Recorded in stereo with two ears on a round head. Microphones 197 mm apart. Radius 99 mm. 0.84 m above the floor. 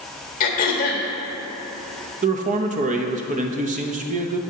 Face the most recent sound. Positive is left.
turn(degrees=-35)  # may be behind; listen again after turning